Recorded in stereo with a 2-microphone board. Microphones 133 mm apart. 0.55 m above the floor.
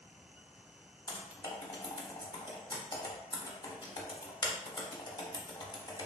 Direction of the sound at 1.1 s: 30° left (ahead or behind).